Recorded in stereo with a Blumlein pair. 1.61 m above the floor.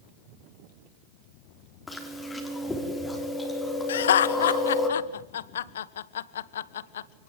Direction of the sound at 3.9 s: 60° left.